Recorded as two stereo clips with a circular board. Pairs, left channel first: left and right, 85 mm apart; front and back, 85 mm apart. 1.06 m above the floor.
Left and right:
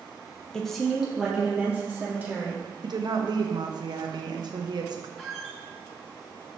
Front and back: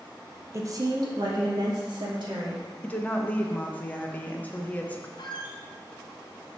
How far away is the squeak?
About 1.1 m.